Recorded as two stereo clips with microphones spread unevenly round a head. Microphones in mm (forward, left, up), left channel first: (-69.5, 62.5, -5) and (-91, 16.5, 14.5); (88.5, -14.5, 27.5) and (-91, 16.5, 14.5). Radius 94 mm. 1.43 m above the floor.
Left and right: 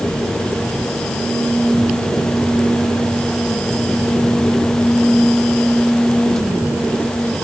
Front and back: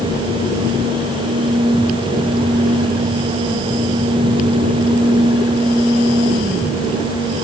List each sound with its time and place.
Only background noise.